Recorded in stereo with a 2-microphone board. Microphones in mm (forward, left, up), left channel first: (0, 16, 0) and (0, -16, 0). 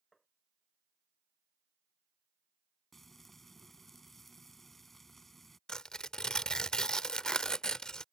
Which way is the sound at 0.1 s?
5° left (ahead or behind).